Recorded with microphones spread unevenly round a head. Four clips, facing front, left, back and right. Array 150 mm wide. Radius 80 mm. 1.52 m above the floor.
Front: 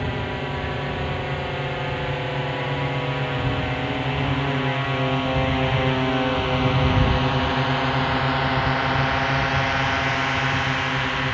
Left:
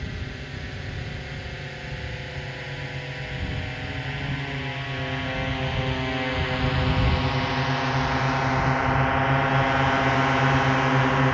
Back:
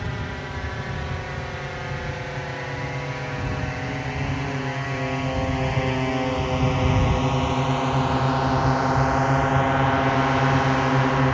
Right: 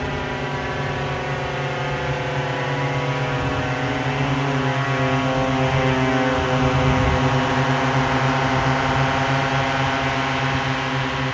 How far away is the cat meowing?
No cat meowing in this recording.